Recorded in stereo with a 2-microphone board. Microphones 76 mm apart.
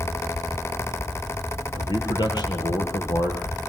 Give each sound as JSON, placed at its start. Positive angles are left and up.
{"t": 1.8, "sound": "a man speaking", "side_deg": 65, "distance_m": 5.0}